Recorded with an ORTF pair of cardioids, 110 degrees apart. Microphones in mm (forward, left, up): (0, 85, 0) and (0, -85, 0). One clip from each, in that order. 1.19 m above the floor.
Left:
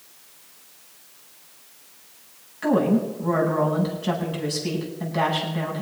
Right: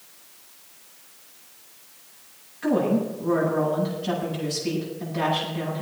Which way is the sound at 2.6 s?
45° left.